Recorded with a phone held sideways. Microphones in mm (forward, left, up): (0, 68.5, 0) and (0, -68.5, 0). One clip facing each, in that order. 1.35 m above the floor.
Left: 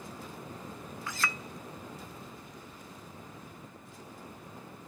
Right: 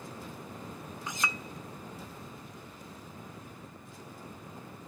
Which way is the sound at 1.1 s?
20° right (ahead or behind).